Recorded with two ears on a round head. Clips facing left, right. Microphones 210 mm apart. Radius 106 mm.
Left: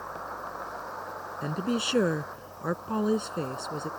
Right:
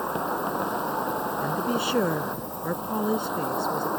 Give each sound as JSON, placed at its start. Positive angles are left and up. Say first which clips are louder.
{"t": 0.0, "sound": "an insect", "louder": "right 12 dB", "side_deg": -70}
{"t": 1.4, "sound": "a woman speaking", "louder": "even", "side_deg": 0}